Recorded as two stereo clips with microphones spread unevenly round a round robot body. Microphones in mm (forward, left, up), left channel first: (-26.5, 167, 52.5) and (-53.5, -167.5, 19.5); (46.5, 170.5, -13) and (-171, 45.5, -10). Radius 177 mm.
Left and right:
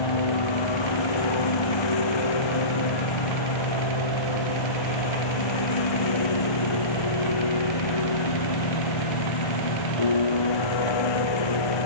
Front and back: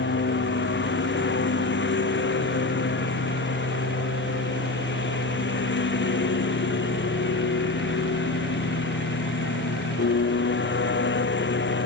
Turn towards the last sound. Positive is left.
turn(degrees=70)